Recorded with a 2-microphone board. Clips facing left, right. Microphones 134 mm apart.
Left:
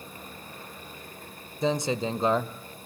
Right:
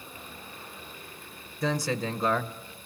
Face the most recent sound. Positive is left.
turn(degrees=20)  # may be behind; listen again after turning